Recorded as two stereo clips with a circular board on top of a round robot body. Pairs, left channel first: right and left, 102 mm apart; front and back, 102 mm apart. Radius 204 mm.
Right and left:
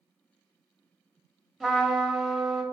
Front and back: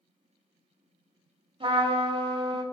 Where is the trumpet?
175° right, 2.5 m.